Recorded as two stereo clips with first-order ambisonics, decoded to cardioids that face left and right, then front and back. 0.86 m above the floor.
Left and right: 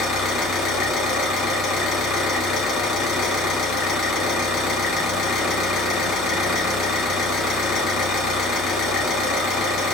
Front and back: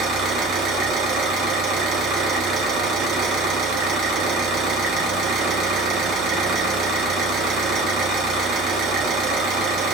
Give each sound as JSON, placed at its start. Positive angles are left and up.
{"t": 0.0, "sound": "an engine running", "azimuth_deg": 140, "distance_m": 1.3}